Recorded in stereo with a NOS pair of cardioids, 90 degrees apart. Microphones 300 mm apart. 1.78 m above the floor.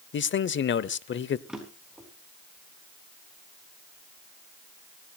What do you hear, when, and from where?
0.1 s a man speaking: 40° left, 0.8 m
1.5 s a drawer: straight ahead, 4.5 m